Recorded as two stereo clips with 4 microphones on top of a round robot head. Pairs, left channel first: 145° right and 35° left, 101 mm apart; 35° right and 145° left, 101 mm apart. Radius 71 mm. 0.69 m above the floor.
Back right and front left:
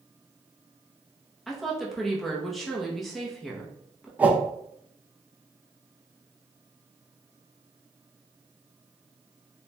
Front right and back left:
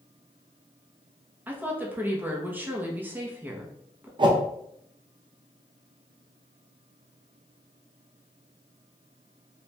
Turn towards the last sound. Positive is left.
turn(degrees=110)